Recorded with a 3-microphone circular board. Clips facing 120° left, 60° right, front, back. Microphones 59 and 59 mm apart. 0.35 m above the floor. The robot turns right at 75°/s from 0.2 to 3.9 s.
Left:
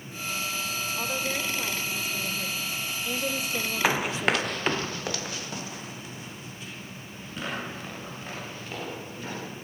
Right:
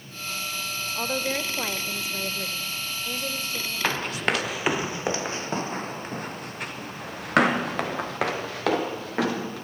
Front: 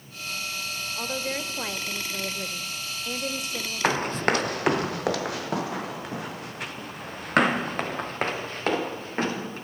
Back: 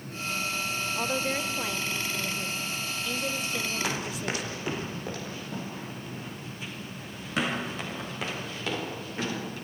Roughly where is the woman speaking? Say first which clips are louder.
Right 4 dB, back 1 dB; behind right.